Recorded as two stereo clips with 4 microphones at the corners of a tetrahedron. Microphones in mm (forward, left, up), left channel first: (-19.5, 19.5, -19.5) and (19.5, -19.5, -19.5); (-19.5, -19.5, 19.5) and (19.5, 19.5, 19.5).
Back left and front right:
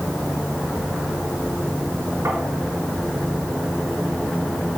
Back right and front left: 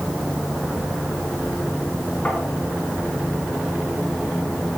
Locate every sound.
2.2 s tapping: 65° right, 4 m